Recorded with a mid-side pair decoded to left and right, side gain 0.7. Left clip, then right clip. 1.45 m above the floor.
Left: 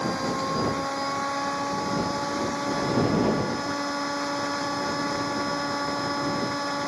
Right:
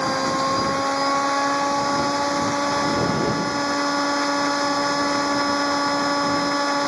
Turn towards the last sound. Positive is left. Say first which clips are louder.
# right 6 dB
turn(degrees=-35)